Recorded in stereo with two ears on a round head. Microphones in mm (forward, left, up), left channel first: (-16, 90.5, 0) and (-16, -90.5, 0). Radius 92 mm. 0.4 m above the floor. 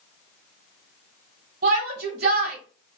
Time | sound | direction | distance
1.6 | a shout | 50° right (ahead or behind) | 2.5 m